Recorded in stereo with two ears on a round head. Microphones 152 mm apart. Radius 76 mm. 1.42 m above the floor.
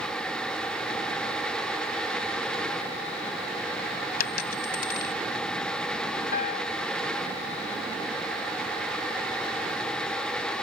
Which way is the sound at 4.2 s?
60° left (ahead or behind).